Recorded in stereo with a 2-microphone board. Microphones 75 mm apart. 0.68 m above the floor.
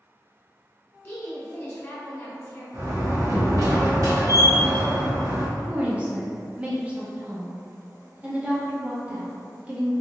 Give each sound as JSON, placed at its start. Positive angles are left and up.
{"t": 1.0, "sound": "a woman speaking", "side_deg": 25, "distance_m": 1.2}
{"t": 2.7, "sound": "a door slam", "side_deg": -50, "distance_m": 0.9}
{"t": 5.6, "sound": "a woman speaking", "side_deg": -20, "distance_m": 0.7}